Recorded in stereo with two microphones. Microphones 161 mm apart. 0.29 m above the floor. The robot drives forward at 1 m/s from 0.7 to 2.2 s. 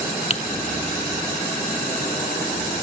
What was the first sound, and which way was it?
Typing on a keyboard, 40° left (ahead or behind).